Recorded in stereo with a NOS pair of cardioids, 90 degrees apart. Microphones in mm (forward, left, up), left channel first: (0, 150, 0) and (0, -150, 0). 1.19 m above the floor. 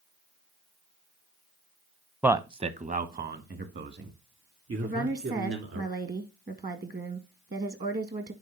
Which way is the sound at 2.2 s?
5° right.